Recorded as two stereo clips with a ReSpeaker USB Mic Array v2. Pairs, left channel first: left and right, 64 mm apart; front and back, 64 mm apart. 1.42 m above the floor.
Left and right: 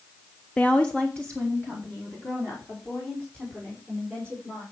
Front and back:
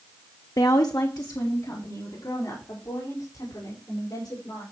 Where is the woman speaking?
20° left, 0.6 m.